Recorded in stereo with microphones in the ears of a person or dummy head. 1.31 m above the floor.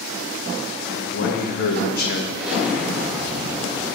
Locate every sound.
0.9 s a man speaking: 55° left (ahead or behind), 1.6 m
2.4 s an explosion: 5° right (ahead or behind), 2.5 m